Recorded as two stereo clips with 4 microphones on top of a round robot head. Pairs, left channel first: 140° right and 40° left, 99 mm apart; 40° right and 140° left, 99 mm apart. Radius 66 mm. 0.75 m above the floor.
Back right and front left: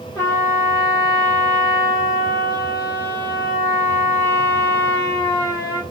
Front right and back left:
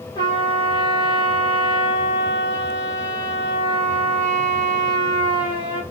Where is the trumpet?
85° right, 2.5 m.